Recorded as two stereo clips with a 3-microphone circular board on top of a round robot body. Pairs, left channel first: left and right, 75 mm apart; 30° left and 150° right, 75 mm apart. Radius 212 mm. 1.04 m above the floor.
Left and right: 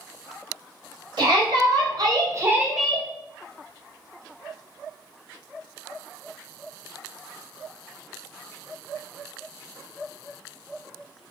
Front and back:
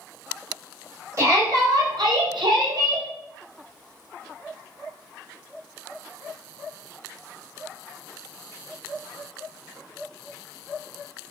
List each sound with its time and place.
1.2 s a shout: 105° right, 1.8 m; by 3.1 s 155° left, 0.7 m